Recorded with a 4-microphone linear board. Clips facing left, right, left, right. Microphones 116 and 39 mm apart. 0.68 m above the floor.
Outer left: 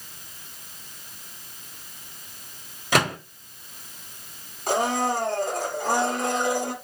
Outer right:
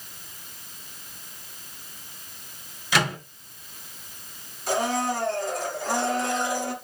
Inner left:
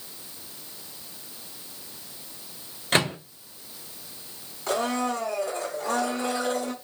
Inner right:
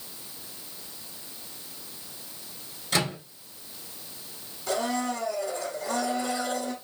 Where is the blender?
55° left (ahead or behind), 2.5 m.